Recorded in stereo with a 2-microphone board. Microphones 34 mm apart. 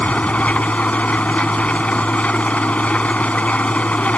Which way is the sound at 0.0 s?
45° left (ahead or behind).